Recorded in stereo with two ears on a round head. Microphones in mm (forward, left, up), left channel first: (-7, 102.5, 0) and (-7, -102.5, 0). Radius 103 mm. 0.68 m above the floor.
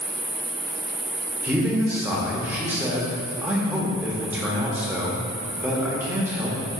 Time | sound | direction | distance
0.0 | an insect | 20° right (ahead or behind) | 0.9 m
1.4 | a man speaking | 10° right (ahead or behind) | 0.7 m